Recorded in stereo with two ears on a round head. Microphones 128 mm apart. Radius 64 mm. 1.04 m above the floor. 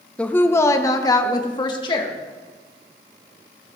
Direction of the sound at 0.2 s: 10° left (ahead or behind).